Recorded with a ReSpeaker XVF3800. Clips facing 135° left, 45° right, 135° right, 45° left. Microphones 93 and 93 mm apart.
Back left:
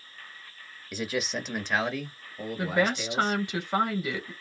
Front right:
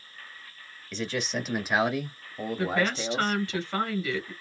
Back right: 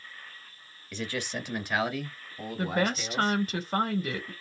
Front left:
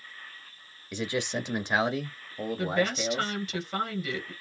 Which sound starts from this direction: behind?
A woman speaking, at 2.6 s.